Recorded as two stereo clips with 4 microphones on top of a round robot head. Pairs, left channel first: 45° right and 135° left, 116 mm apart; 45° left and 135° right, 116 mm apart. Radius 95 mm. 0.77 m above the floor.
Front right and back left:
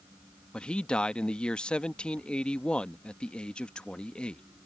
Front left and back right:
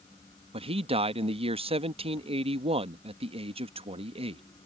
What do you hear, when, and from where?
0.5 s a man speaking: 125° right